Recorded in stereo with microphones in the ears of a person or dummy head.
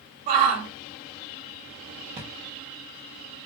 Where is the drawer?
25° right (ahead or behind), 0.9 m.